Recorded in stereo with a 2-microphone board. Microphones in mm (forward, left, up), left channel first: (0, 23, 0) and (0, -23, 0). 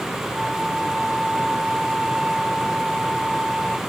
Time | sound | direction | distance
0.3 | a flute | centre (ahead or behind) | ?